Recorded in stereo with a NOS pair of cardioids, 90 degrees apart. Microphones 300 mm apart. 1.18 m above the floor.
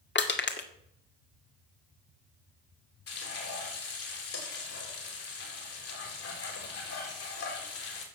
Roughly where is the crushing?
Ahead left.